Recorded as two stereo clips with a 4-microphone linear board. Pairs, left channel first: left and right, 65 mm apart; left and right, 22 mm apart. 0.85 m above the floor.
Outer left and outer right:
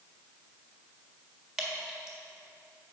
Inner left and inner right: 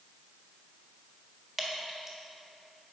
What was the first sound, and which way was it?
Dripping, 5° right (ahead or behind).